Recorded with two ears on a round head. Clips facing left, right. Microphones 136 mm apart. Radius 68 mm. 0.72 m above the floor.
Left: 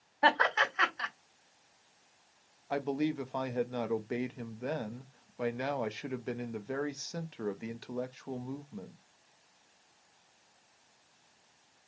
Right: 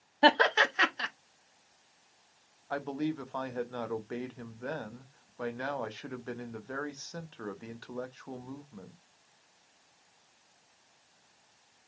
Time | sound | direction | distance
0.2 | laughter | 35° right (ahead or behind) | 1.1 m
2.7 | a man speaking | 15° left (ahead or behind) | 0.5 m